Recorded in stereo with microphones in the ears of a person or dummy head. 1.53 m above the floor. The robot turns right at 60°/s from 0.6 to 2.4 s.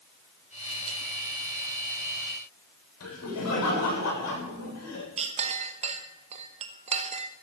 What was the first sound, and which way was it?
Laughter, 85° left.